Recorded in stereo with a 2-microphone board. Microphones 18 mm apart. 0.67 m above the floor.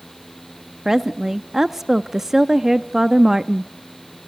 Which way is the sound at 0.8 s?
20° right (ahead or behind).